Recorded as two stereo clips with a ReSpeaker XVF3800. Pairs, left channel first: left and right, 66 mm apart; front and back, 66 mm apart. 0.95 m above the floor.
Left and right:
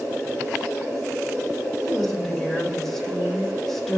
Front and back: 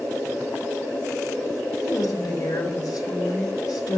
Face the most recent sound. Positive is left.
turn(degrees=5)